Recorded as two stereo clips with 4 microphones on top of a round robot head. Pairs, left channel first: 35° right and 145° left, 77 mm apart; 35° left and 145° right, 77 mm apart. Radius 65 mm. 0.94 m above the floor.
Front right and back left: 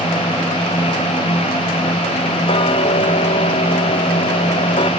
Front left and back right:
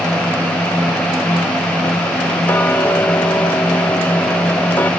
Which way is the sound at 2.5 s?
35° right.